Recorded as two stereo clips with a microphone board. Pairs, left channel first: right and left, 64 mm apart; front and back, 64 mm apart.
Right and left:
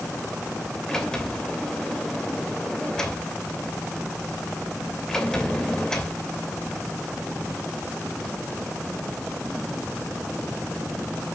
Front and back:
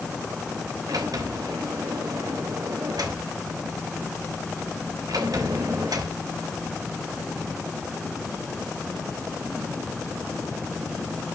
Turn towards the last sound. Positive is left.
turn(degrees=-170)